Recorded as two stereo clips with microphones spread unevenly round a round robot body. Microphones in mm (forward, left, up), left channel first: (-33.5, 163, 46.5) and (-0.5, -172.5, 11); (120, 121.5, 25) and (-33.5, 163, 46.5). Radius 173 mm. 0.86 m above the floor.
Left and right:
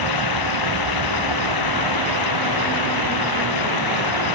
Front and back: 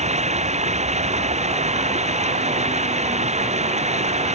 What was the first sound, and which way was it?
Running water, 120° left.